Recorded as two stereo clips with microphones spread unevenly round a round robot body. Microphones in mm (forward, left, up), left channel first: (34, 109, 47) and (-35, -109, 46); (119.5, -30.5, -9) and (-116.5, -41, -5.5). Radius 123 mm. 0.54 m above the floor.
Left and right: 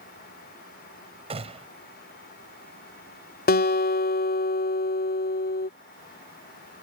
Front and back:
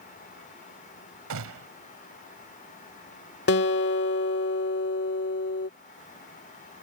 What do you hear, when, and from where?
1.3 s a gunshot: 170° right
3.5 s a guitar: 35° left